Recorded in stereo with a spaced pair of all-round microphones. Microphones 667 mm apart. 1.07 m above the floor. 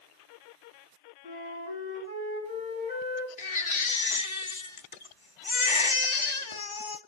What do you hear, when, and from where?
1.2 s a flute: 20° left (ahead or behind), 5 m
3.4 s a baby crying: 45° left (ahead or behind), 0.9 m